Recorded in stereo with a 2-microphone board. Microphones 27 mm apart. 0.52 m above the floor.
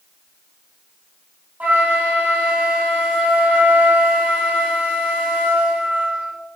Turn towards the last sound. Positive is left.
turn(degrees=-80)